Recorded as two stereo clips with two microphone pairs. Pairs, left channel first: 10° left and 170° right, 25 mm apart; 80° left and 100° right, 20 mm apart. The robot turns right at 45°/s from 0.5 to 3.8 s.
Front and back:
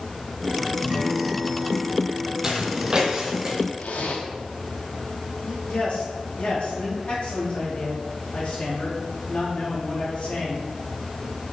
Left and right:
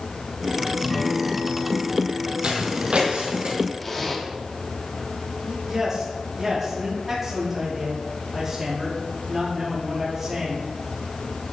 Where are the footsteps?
110° right, 1.5 m; by 3.5 s 100° right, 2.5 m.